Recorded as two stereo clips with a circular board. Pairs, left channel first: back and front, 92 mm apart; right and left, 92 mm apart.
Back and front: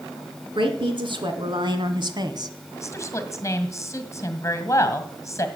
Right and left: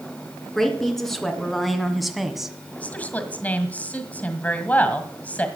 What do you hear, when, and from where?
0.6 s a woman speaking: 5° right, 2.5 m; by 2.6 s 5° left, 1.4 m
2.7 s a woman speaking: 155° right, 1.7 m